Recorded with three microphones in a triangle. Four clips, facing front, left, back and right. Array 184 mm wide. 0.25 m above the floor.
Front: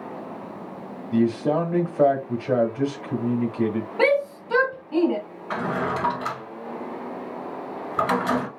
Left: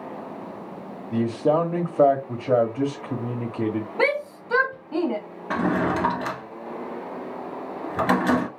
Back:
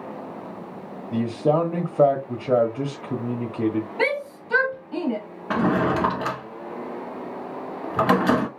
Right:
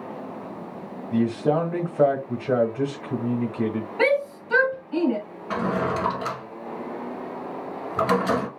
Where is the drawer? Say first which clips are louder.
Left 2 dB, back 5 dB; 160° left, 1.0 m.